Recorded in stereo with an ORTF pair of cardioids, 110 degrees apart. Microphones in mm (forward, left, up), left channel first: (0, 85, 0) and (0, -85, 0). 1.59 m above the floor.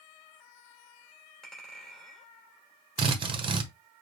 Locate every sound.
1.4 s a clink: 5° left, 3 m
3.0 s a drill: 30° right, 1.0 m